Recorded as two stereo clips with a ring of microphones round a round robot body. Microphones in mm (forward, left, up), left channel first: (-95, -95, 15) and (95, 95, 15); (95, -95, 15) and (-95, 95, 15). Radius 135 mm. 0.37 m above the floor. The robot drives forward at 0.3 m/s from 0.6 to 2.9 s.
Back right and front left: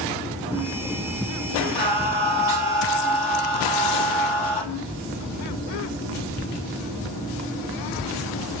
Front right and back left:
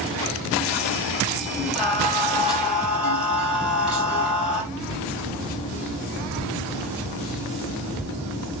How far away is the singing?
About 5.5 m.